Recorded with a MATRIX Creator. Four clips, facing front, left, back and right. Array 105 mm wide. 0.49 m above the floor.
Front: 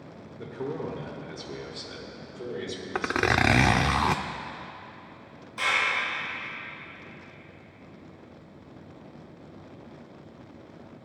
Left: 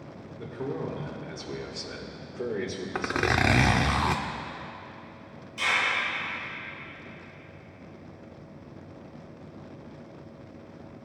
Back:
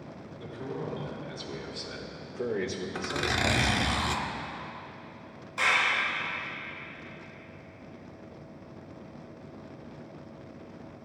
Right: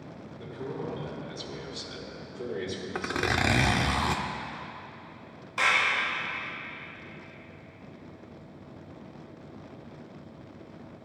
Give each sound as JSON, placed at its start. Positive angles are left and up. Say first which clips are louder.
{"t": 0.4, "sound": "a man speaking", "louder": "left 3 dB, front 4 dB", "azimuth_deg": 25, "distance_m": 1.6}
{"t": 3.0, "sound": "a zipper", "louder": "left 3 dB, front 8 dB", "azimuth_deg": 20, "distance_m": 0.6}
{"t": 5.6, "sound": "a clap", "louder": "right 2 dB, back 1 dB", "azimuth_deg": -100, "distance_m": 5.0}